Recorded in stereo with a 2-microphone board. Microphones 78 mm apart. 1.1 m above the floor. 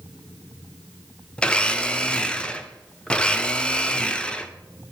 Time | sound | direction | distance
1.4 | a blender | 15° left (ahead or behind) | 0.5 m